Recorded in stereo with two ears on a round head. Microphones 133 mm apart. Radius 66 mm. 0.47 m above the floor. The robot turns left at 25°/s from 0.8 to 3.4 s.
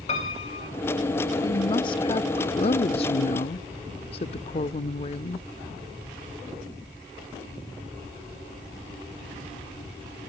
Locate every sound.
0.1 s a piano: 45° left (ahead or behind), 3.5 m
1.4 s a woman speaking: 135° left, 0.9 m; by 5.5 s 85° left, 0.9 m